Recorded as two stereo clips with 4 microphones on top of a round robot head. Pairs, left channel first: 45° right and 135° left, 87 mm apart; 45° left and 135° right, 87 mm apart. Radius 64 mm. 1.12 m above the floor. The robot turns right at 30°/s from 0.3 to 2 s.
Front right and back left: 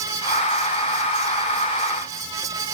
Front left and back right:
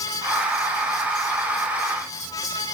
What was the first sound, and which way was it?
Only background noise.